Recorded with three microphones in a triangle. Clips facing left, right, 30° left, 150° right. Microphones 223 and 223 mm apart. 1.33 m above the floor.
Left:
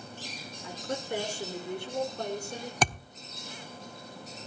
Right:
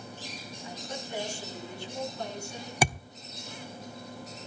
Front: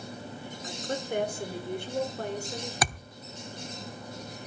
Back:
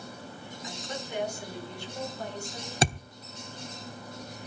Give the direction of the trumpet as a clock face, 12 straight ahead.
No trumpet in this recording.